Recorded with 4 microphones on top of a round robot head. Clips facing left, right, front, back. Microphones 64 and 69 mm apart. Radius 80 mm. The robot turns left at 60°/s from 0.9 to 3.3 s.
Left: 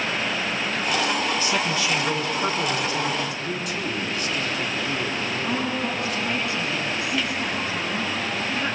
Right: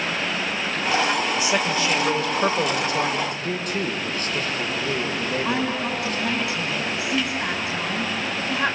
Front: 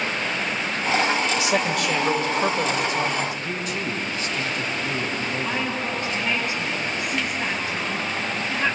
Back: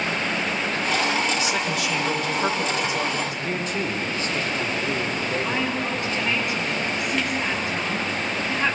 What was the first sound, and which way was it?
A man speaking, 10° right.